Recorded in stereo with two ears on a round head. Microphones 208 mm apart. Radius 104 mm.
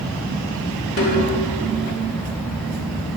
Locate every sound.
1.0 s a snare drum: 45° left (ahead or behind), 2 m